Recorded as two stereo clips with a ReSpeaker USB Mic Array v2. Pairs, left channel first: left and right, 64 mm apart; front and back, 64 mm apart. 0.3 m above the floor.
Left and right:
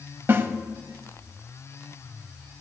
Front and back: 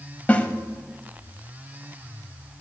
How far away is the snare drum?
About 1.0 m.